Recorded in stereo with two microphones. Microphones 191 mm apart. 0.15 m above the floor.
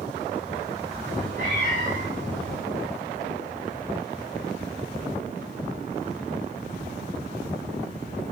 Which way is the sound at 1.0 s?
35° right (ahead or behind).